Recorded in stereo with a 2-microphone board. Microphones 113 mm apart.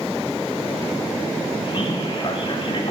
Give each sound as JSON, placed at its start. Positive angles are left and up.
{"t": 1.7, "sound": "a man speaking", "side_deg": 45, "distance_m": 1.3}